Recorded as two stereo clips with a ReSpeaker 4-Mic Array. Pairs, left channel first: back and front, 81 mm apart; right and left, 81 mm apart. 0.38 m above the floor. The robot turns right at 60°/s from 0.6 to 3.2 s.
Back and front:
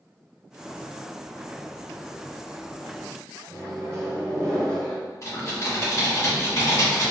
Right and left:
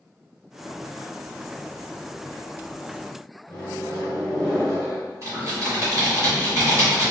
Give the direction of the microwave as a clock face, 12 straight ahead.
1 o'clock.